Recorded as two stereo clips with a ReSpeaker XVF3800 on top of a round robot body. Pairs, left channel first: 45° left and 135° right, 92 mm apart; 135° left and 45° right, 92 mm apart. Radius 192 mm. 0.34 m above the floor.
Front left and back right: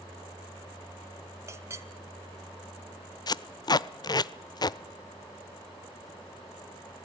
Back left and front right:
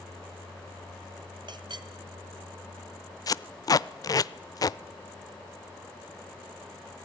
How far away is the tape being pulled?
About 0.5 m.